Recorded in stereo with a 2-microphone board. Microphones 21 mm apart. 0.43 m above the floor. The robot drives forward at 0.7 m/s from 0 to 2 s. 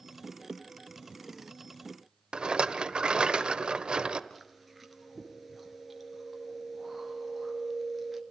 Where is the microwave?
No microwave in this recording.